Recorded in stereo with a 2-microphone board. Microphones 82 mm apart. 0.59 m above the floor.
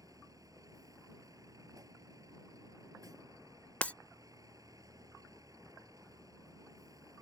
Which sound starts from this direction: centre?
Breaking glass, at 3.8 s.